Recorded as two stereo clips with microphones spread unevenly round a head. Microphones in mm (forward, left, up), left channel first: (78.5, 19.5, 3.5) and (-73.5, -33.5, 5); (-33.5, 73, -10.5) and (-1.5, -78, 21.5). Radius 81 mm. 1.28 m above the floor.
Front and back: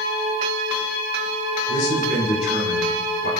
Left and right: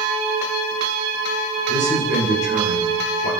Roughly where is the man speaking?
Ahead left.